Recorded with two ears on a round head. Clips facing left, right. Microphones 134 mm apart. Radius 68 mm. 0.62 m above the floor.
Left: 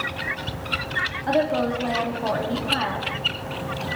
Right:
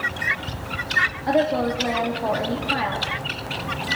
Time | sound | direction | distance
1.3 | a woman speaking | 10° right (ahead or behind) | 1.2 m